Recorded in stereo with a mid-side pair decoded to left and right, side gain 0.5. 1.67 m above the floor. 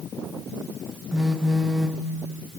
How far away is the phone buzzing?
About 0.5 m.